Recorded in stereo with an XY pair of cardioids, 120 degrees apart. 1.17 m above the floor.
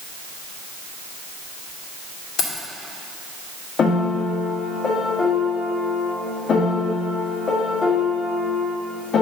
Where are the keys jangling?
50° left, 2.5 m.